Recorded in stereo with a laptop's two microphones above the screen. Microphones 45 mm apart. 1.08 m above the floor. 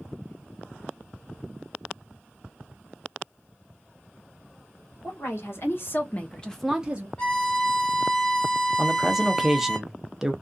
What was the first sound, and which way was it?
A woman speaking, 65° left (ahead or behind).